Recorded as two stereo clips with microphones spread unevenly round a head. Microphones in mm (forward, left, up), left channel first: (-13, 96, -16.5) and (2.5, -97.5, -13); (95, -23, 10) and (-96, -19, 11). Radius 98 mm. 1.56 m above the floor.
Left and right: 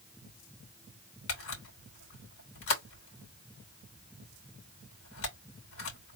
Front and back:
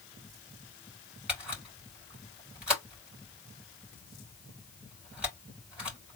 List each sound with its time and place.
1.3 s a camera shutter: 95° left, 3 m